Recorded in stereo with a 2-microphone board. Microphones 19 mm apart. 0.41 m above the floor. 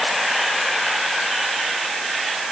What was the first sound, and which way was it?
Only background noise.